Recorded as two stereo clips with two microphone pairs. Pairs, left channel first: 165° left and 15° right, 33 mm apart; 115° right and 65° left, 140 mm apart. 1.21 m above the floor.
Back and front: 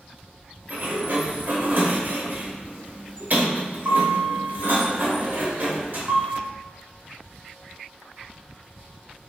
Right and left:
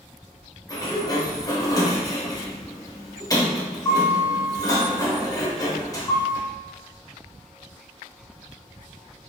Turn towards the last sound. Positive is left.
turn(degrees=-55)